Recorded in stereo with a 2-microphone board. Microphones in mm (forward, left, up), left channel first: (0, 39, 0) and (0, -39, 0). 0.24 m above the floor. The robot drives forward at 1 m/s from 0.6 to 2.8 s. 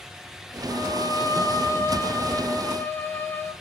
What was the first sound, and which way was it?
A violin, 60° left (ahead or behind).